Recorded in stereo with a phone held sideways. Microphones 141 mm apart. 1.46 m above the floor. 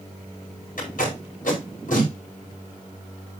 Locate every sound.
0.8 s tape being pulled: 75° left (ahead or behind), 4.5 m